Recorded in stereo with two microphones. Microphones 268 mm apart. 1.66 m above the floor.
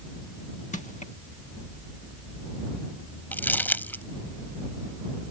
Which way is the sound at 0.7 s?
30° left (ahead or behind).